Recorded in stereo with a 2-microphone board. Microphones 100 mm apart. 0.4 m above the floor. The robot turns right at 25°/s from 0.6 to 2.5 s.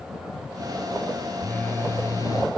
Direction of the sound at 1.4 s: 15° left (ahead or behind).